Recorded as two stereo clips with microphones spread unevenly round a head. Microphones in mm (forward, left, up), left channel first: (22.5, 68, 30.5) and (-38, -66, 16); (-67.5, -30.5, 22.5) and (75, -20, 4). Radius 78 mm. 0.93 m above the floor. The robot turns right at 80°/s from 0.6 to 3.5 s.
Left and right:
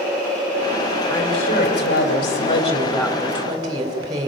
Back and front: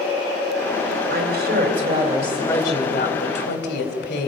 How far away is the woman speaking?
About 3.5 m.